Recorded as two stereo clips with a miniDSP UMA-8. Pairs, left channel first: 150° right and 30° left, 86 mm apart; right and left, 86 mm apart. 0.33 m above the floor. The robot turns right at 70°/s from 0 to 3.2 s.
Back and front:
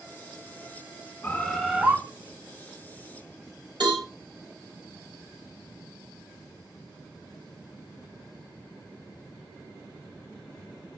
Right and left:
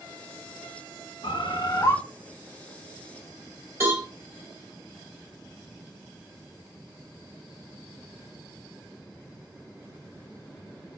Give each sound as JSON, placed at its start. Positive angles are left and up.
{"t": 1.2, "sound": "a bird", "azimuth_deg": -85, "distance_m": 0.8}
{"t": 3.8, "sound": "a cowbell", "azimuth_deg": 35, "distance_m": 3.5}